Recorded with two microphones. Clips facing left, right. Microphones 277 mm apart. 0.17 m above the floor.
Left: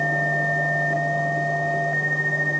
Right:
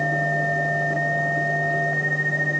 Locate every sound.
Only background noise.